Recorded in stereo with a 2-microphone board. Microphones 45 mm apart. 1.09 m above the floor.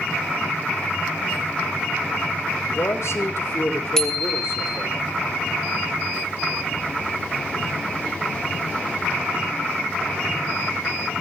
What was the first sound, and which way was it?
A man speaking, 75° left (ahead or behind).